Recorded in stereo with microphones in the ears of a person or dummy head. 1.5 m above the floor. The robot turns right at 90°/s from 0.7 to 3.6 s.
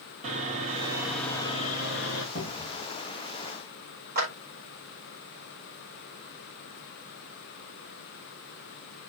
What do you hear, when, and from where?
0.2 s sawing: 40° right, 2 m; by 2.2 s 100° left, 2 m
2.4 s a cupboard door: 110° left, 2.5 m; by 2.9 s 155° left, 2.5 m
4.2 s a clap: 45° right (ahead or behind), 4 m